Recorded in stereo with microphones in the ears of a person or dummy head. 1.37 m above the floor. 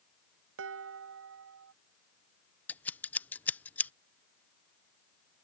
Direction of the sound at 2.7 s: 15° left (ahead or behind).